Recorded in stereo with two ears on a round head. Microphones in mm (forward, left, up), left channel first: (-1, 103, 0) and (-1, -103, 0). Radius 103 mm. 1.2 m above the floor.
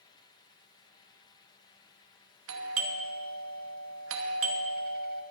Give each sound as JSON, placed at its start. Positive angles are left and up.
{"t": 2.5, "sound": "a doorbell", "side_deg": -65, "distance_m": 1.0}